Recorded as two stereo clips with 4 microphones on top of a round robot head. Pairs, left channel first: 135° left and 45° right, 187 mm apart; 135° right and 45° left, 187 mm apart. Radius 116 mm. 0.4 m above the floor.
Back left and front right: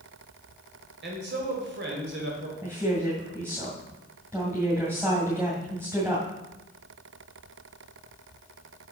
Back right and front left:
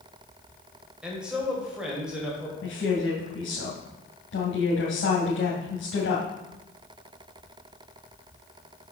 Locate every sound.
1.0 s a man speaking: 40° right, 1.9 m
2.6 s a woman speaking: 120° right, 2.5 m